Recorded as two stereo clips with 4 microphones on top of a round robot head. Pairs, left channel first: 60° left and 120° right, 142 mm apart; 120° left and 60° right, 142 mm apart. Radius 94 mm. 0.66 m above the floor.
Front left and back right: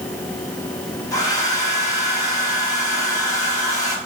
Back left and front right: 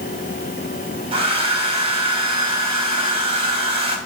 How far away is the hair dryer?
About 2.5 m.